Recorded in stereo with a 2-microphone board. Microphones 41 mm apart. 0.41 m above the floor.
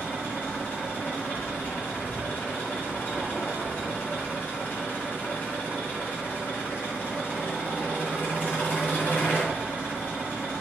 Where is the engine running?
55° left (ahead or behind), 3.5 m.